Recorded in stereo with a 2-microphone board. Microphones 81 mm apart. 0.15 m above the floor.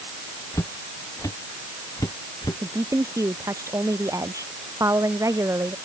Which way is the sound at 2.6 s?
40° right (ahead or behind).